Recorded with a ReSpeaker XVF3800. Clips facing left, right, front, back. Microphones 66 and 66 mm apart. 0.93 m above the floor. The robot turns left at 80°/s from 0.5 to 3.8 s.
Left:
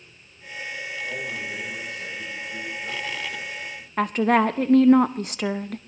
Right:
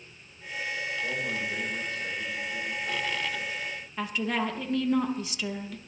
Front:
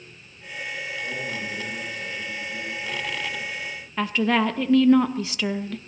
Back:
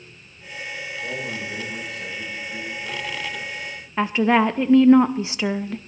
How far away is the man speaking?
About 8.5 m.